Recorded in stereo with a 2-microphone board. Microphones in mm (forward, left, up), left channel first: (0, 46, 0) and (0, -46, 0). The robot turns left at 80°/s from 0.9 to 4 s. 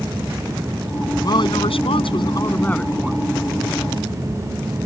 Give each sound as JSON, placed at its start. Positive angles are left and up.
{"t": 1.2, "sound": "a woman speaking", "azimuth_deg": 135}